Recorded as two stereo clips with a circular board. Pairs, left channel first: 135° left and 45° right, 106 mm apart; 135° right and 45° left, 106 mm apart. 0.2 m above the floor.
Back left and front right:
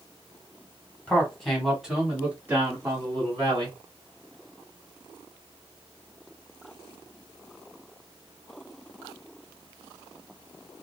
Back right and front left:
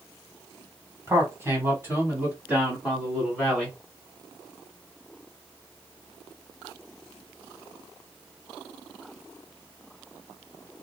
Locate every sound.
1.1 s a man speaking: 70° left, 1.3 m; by 3.8 s 40° right, 1.6 m